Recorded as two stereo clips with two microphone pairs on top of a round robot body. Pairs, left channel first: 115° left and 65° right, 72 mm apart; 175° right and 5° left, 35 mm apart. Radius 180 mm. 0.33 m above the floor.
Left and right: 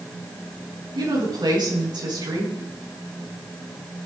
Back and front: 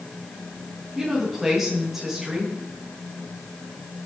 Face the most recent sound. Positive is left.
turn(degrees=-80)